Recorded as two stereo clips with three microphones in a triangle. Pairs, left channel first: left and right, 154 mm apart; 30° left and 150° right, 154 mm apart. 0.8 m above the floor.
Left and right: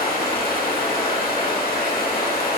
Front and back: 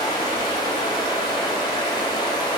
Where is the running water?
90° left, 1.0 m.